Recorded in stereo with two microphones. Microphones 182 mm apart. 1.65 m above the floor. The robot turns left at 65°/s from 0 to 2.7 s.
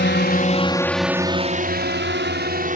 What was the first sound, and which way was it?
A drone, 80° left.